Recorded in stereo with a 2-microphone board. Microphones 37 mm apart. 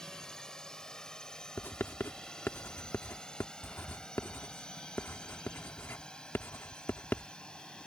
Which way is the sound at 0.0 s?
15° left (ahead or behind).